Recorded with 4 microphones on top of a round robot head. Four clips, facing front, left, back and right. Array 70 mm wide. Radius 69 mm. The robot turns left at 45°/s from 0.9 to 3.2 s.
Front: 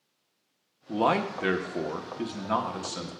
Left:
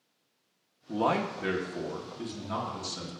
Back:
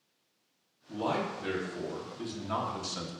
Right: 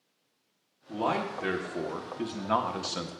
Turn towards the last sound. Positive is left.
turn(degrees=-85)